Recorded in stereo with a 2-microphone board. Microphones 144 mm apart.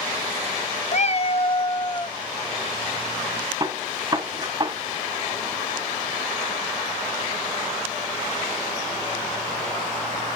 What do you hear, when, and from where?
0.9 s a cat meowing: 55° left (ahead or behind), 0.5 m; by 2.2 s 30° left (ahead or behind), 1.2 m
3.6 s a gunshot: 30° right (ahead or behind), 1.5 m